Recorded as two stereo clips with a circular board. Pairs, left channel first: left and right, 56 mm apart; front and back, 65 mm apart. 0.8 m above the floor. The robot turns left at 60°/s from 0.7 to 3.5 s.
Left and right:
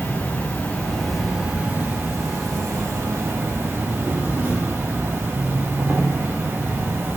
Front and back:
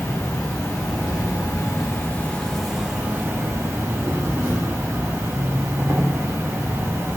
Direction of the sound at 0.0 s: 25° left.